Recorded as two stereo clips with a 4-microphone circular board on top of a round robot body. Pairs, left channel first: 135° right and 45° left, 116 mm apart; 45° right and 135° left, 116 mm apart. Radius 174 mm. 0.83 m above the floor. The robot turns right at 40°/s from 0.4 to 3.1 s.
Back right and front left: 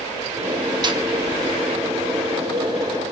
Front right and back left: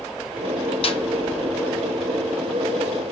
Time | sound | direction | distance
0.8 | a snare drum | 5° right | 1.0 m